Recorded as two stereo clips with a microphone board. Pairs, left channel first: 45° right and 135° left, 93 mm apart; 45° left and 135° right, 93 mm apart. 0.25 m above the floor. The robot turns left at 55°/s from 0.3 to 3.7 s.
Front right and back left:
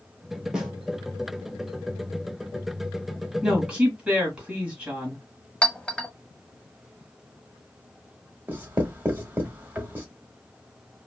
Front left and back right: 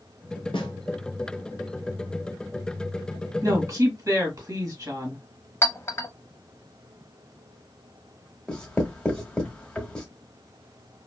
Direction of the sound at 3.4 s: 135° right.